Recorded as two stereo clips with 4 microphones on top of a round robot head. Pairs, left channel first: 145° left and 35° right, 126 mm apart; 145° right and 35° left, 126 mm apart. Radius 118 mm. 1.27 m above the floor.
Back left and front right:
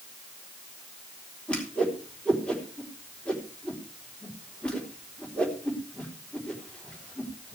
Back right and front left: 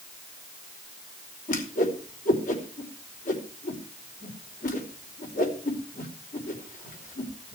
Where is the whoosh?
135° right, 3.5 m.